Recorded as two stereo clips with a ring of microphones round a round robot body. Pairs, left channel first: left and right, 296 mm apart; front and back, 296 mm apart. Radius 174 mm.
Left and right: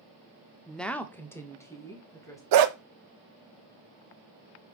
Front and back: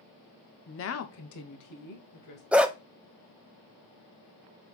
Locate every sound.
0.7 s a woman speaking: straight ahead, 0.8 m; by 2.4 s 10° left, 2.5 m
2.5 s a dog barking: 95° right, 0.8 m